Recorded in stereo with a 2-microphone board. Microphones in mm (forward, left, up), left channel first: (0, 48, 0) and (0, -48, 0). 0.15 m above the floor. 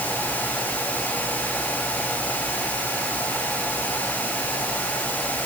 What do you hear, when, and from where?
Only background noise.